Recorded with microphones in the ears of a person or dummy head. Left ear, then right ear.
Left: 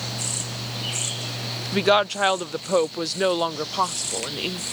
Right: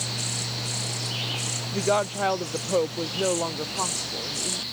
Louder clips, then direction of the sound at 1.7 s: Left 6 dB; 60° left (ahead or behind).